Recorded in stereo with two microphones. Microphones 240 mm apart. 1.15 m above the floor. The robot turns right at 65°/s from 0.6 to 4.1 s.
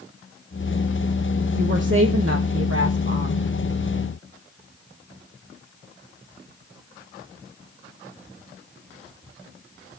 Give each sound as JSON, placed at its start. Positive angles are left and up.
{"t": 1.6, "sound": "a woman speaking", "azimuth_deg": -145, "distance_m": 1.1}